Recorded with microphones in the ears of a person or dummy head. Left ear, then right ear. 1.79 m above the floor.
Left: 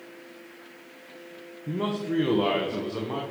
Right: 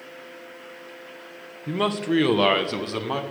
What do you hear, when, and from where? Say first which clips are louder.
1.7 s a man speaking: right 6 dB; 20° right (ahead or behind), 0.7 m; by 3.2 s 65° right (ahead or behind), 1.6 m